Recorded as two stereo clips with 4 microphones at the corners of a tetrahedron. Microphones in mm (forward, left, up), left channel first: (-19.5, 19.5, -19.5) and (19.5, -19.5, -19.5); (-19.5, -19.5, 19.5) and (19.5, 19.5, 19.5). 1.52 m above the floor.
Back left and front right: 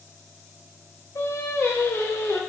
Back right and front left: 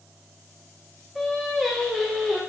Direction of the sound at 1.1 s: 135° left.